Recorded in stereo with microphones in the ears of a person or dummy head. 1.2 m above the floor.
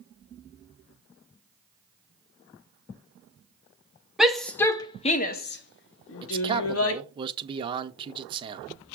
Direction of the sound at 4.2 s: 5° right (ahead or behind).